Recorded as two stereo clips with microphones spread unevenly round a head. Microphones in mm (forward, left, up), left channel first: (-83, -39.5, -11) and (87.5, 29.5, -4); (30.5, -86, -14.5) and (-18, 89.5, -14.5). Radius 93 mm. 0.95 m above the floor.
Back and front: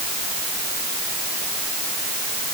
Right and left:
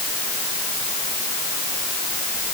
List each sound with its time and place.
Only background noise.